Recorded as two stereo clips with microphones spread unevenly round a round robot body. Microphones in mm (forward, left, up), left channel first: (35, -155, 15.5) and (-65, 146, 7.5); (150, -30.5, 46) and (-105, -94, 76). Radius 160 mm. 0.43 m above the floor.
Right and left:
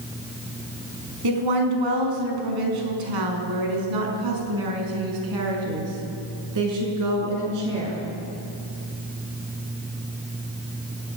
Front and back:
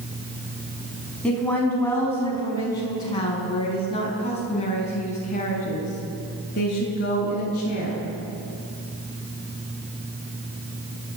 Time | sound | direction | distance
1.2 | a woman speaking | 100° left | 5 m